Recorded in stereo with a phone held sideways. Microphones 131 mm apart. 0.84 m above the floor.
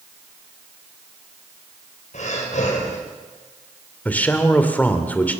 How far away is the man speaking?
About 2.5 m.